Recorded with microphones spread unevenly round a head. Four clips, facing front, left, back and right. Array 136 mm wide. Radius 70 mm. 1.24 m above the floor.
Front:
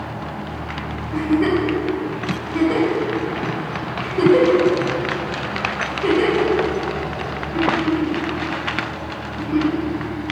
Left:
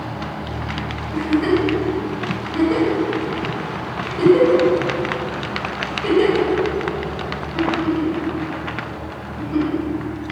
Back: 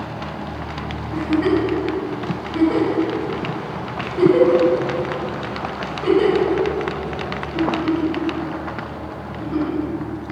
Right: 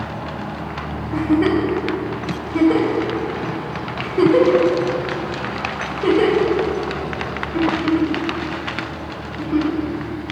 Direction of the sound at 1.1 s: 95° right.